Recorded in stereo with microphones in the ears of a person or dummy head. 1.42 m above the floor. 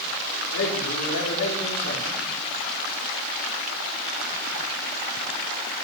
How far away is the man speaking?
About 5 m.